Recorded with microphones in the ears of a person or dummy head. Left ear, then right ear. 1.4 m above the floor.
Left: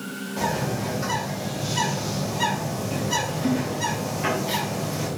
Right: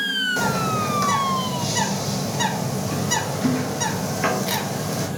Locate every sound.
0.4 s a bird: 65° right (ahead or behind), 0.6 m